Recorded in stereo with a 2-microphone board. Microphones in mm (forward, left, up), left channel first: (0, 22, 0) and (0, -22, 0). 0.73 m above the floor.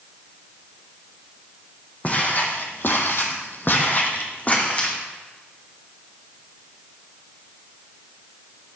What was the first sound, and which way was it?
Footsteps, 35° left (ahead or behind).